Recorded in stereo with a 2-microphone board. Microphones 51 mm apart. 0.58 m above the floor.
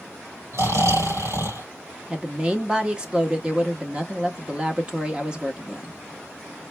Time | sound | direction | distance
0.5 | snoring | 70° right (ahead or behind) | 3 m
2.1 | a woman speaking | 20° right (ahead or behind) | 0.8 m